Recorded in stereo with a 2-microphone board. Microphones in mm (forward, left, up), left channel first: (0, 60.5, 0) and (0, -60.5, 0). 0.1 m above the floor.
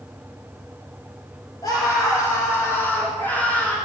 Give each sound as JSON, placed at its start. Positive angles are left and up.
{"t": 1.6, "sound": "a scream", "side_deg": 35, "distance_m": 4.5}